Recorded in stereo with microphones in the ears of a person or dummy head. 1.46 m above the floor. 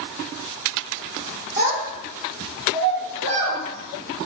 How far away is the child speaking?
About 2.5 m.